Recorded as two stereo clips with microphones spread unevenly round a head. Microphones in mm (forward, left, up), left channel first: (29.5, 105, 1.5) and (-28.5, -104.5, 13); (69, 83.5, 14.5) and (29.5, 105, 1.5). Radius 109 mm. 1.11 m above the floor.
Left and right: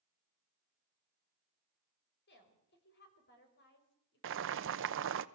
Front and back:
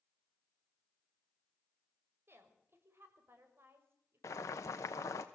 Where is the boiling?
75° right, 1.0 m.